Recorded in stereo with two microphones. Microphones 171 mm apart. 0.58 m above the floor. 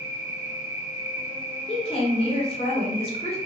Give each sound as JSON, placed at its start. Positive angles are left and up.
{"t": 0.0, "sound": "an insect", "side_deg": -5, "distance_m": 1.1}
{"t": 1.7, "sound": "a woman speaking", "side_deg": 35, "distance_m": 1.2}